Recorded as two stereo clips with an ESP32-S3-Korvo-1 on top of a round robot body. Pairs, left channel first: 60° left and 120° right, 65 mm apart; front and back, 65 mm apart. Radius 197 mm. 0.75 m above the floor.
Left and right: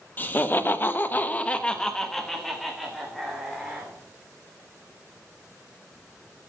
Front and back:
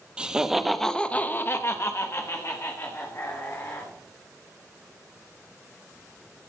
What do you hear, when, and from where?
0.2 s laughter: 110° left, 1.5 m; by 3.9 s 35° right, 3 m